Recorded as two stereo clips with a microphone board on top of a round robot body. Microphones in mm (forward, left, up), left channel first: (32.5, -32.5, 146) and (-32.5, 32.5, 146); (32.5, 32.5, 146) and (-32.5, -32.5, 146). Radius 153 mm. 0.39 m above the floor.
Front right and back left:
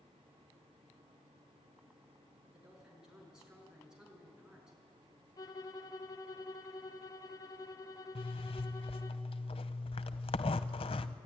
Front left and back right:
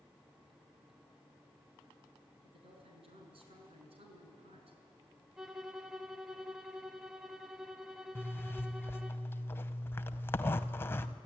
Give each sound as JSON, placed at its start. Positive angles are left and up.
{"t": 2.4, "sound": "a woman speaking", "azimuth_deg": -140, "distance_m": 6.0}
{"t": 5.4, "sound": "a violin", "azimuth_deg": -50, "distance_m": 1.8}
{"t": 8.2, "sound": "a zipper", "azimuth_deg": -20, "distance_m": 0.7}